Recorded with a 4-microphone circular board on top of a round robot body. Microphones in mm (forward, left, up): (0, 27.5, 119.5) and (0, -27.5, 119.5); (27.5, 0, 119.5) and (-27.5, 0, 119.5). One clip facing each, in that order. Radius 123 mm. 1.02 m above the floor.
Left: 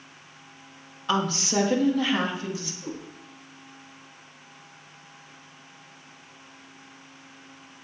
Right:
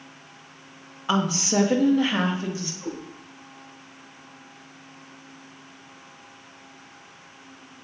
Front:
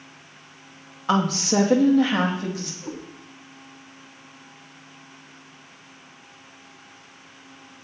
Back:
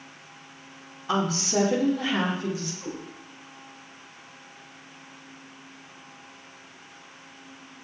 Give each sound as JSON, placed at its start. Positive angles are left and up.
{"t": 1.1, "sound": "a woman speaking", "azimuth_deg": -15, "distance_m": 1.7}
{"t": 2.8, "sound": "a cat meowing", "azimuth_deg": -105, "distance_m": 6.0}